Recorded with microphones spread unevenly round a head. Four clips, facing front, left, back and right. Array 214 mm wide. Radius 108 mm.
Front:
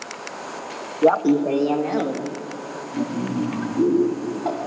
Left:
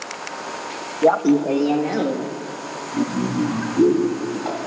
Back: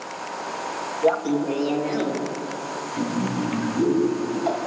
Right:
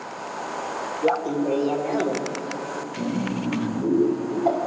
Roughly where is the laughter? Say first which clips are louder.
Left 7 dB, front 5 dB; ahead left.